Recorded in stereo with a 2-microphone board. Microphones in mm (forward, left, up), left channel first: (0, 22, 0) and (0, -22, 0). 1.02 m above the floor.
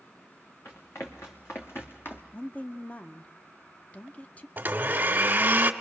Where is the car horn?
No car horn in this recording.